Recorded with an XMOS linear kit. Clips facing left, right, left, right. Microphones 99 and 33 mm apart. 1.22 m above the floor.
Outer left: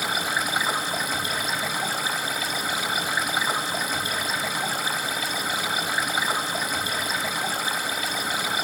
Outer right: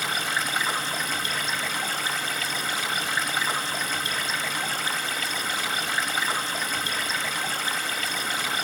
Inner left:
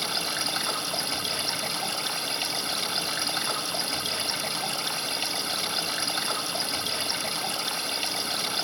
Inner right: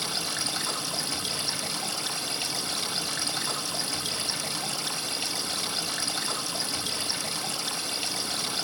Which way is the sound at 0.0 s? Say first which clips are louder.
Outer left 2 dB, inner left 2 dB; 10° left (ahead or behind).